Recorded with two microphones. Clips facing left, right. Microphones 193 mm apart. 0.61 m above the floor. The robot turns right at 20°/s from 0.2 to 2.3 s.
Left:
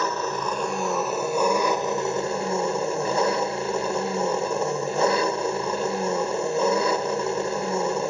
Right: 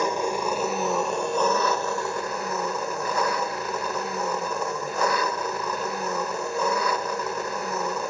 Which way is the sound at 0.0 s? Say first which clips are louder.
Right 2 dB; 15° right.